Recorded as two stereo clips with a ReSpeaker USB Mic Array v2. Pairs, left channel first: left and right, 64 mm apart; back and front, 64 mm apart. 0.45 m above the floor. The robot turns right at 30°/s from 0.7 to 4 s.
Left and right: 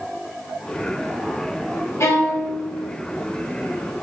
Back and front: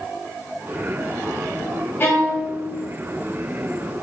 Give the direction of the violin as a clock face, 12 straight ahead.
8 o'clock.